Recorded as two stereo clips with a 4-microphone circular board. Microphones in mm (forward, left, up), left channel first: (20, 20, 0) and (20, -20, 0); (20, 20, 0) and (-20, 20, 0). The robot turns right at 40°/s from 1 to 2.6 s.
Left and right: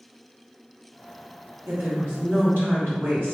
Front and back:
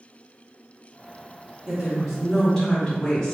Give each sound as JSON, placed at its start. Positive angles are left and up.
{"t": 1.7, "sound": "a woman speaking", "azimuth_deg": -115, "distance_m": 1.5}